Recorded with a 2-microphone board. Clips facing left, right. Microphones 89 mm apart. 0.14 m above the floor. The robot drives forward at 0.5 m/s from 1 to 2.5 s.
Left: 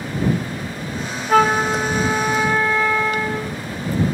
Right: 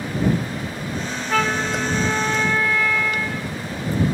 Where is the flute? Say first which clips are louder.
Left 7 dB; 40° left (ahead or behind), 0.7 m; by 3.5 s 25° left (ahead or behind), 1.0 m.